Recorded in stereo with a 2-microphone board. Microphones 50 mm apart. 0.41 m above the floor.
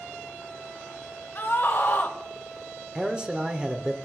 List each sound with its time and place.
1.4 s a scream: 45° left (ahead or behind), 1.9 m
3.0 s a man speaking: 15° right (ahead or behind), 0.9 m